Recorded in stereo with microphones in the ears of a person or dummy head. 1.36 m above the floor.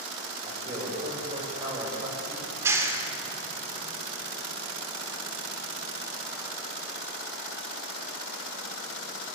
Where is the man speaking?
35° right (ahead or behind), 7 m.